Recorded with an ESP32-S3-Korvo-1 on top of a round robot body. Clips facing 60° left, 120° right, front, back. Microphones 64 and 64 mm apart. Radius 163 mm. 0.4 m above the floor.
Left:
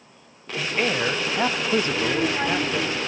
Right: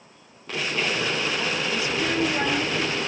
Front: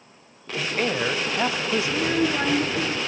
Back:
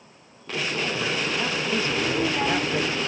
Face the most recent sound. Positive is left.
turn(degrees=-25)